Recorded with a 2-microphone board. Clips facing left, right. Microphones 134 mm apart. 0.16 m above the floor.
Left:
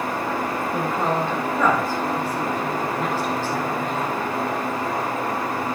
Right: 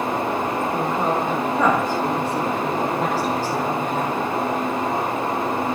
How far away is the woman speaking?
About 4.5 m.